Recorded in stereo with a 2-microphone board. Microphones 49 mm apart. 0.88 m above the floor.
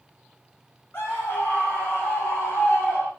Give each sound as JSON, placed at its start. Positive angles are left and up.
{"t": 0.9, "sound": "a scream", "side_deg": 40, "distance_m": 4.5}